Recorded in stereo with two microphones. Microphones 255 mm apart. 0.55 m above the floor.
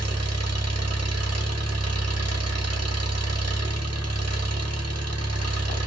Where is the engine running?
65° right (ahead or behind), 0.9 m.